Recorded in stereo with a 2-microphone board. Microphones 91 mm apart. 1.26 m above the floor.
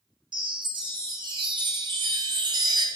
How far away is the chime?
About 0.5 m.